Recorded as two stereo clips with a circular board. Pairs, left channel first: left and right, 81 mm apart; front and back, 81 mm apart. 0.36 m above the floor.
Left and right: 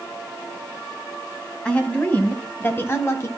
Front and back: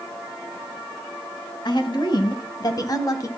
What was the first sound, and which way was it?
A woman speaking, 15° left.